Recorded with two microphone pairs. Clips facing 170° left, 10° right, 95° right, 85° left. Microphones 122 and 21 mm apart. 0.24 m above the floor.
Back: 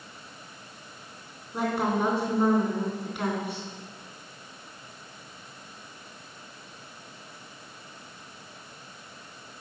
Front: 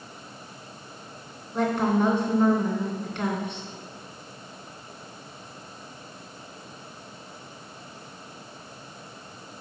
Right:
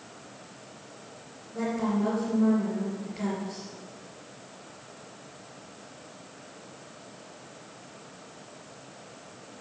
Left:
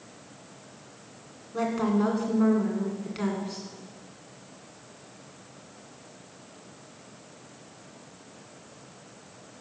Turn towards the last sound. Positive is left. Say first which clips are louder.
# front 3 dB, left 2 dB
turn(degrees=90)